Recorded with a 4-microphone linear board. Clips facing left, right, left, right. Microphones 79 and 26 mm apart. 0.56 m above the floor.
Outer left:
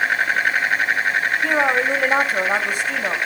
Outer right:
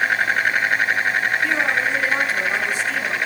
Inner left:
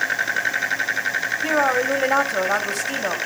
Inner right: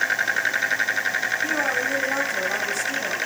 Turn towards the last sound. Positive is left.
turn(degrees=50)  # may be behind; listen again after turning